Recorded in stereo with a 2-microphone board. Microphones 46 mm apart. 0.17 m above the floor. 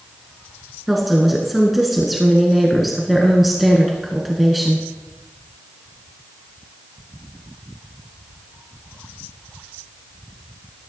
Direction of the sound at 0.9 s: Centre (ahead or behind).